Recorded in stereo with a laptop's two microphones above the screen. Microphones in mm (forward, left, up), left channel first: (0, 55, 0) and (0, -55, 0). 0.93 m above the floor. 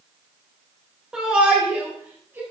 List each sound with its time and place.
1.1 s a shout: 10° right (ahead or behind), 3 m; by 2.4 s 20° right (ahead or behind), 3.5 m